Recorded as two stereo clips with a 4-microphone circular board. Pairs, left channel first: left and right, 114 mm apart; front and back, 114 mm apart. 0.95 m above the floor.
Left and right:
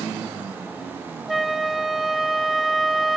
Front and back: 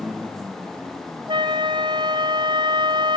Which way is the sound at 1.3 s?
175° right.